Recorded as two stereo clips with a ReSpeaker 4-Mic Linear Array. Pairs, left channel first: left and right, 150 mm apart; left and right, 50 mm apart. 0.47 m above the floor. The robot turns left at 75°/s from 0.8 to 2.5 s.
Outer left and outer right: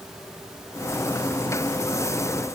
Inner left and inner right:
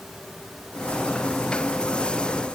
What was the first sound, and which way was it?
Only background noise.